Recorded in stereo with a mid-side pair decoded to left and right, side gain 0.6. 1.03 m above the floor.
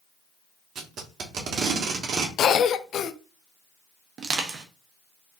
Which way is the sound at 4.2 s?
40° right.